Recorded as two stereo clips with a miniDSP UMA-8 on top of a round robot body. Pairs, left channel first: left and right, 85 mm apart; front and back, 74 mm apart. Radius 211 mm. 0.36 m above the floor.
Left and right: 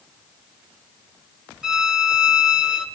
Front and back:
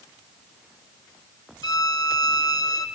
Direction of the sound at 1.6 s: 10° right.